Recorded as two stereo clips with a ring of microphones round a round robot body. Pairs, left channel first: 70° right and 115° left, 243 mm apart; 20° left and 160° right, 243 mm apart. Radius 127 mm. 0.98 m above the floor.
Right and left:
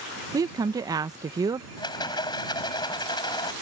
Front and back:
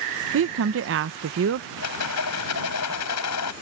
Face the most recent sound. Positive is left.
turn(degrees=5)